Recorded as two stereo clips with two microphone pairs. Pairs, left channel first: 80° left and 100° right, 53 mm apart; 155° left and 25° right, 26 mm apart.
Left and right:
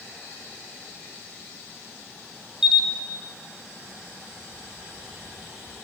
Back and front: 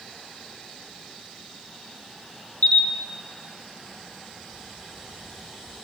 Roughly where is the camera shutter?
Behind.